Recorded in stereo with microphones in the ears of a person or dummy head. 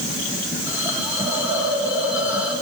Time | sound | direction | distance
0.7 | a hiss | 25° right (ahead or behind) | 6.5 m